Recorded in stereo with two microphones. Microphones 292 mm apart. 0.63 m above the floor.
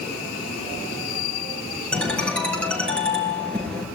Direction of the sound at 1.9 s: 5° left (ahead or behind).